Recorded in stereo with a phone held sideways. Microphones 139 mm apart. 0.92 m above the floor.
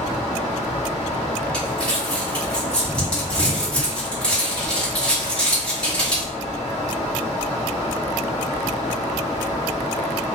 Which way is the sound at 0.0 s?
55° left (ahead or behind).